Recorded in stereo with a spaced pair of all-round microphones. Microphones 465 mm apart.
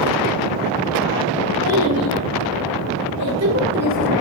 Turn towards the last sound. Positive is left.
turn(degrees=-5)  # may be behind; listen again after turning